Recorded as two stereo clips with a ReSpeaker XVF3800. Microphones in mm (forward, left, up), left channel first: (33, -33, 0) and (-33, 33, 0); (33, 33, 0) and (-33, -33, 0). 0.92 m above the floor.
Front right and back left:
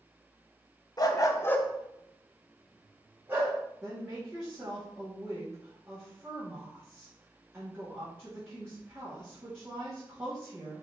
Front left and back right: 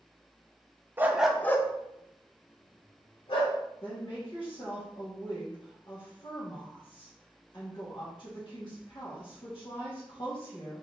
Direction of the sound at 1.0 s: 75° right.